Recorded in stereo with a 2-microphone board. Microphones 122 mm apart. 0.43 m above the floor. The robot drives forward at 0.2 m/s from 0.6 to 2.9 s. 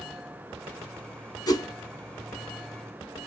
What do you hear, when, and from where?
1.5 s a whoosh: 35° left (ahead or behind), 0.8 m